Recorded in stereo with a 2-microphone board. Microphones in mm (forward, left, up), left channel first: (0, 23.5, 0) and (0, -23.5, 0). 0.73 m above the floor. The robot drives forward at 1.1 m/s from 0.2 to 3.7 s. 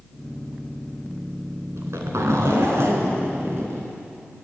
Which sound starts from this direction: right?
A zipper, at 1.8 s.